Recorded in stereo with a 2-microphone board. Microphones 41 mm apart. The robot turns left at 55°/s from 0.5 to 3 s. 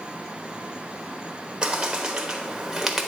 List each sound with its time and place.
1.6 s a bird: 20° right (ahead or behind), 1.1 m; by 3.1 s 5° right (ahead or behind), 1.1 m